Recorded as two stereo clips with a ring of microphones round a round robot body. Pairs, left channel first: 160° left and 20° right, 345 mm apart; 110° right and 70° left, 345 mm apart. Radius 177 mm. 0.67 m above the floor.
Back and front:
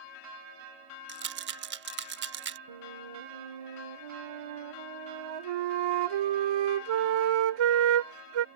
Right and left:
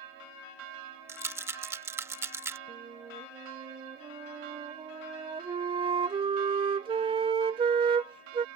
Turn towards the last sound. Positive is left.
turn(degrees=-10)